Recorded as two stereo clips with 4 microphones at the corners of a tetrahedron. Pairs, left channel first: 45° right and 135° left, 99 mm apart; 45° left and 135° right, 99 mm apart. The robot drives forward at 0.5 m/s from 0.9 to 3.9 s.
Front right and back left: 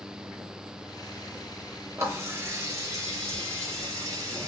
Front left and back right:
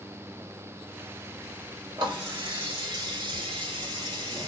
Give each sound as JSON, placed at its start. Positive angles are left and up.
{"t": 2.0, "sound": "a running tap", "azimuth_deg": -165, "distance_m": 1.6}